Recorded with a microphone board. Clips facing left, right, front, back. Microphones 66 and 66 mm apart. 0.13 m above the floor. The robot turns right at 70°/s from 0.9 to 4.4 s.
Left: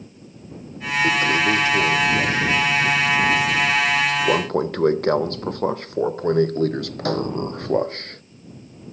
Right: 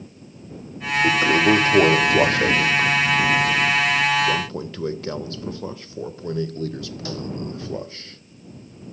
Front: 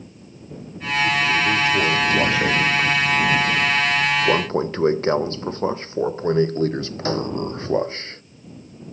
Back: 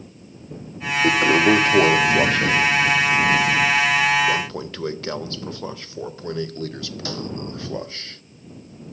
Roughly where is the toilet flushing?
Behind.